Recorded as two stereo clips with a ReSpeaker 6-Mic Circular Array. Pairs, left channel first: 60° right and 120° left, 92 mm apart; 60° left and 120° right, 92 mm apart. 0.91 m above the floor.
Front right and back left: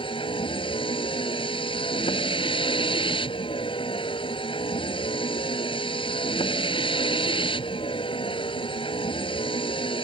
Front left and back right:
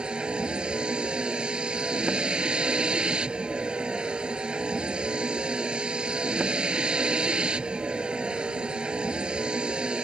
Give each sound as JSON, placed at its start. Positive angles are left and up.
{"t": 0.0, "sound": "a vehicle", "azimuth_deg": -40}